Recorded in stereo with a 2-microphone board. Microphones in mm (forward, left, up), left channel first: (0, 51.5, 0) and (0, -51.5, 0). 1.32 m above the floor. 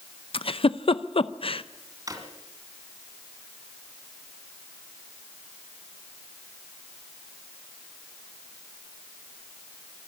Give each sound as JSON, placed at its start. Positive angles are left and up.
{"t": 0.3, "sound": "a giggle", "side_deg": 60, "distance_m": 0.6}
{"t": 2.1, "sound": "a drawer", "side_deg": -35, "distance_m": 2.5}